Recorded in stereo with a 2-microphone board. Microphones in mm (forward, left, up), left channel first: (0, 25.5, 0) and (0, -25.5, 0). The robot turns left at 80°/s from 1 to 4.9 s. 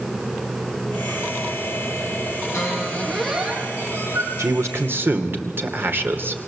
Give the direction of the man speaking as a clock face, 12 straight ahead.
3 o'clock.